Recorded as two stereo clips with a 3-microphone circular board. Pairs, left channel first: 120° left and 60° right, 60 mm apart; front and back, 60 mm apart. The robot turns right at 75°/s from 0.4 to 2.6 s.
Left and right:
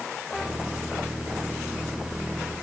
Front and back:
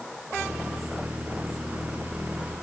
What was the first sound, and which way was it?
Only background noise.